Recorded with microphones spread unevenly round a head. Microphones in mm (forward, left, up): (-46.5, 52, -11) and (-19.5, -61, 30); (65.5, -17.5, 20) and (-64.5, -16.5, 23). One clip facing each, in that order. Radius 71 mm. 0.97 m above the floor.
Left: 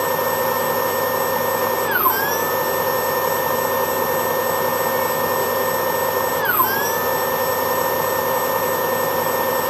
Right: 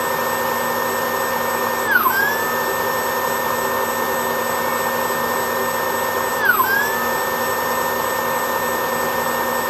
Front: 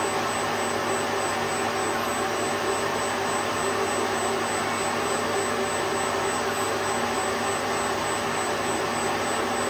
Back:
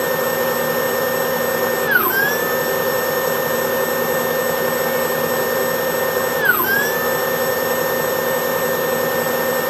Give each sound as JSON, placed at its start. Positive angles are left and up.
{"t": 0.0, "sound": "a machine running", "azimuth_deg": 180}